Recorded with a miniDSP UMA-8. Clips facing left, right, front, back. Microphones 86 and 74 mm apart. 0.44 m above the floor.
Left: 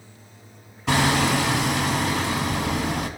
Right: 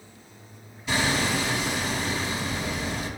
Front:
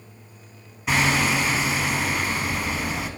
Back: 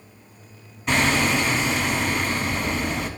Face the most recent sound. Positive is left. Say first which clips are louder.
# left 5 dB, back 1 dB
turn(degrees=85)